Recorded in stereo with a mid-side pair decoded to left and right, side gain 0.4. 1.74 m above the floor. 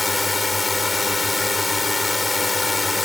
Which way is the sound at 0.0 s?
25° left.